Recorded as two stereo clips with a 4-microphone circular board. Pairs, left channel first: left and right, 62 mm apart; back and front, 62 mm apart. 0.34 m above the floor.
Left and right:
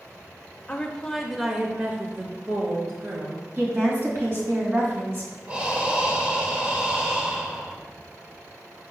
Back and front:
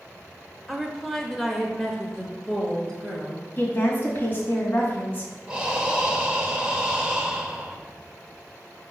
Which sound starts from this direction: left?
A woman speaking, at 0.7 s.